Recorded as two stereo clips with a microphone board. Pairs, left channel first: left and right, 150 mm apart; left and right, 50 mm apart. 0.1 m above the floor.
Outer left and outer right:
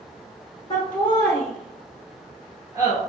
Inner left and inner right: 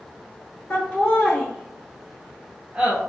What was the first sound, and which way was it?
Laughter, 30° left (ahead or behind).